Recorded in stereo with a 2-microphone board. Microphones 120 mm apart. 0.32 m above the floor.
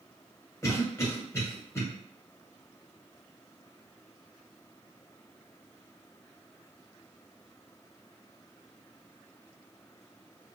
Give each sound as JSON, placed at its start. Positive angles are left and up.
{"t": 0.6, "sound": "a cough", "side_deg": 25, "distance_m": 1.3}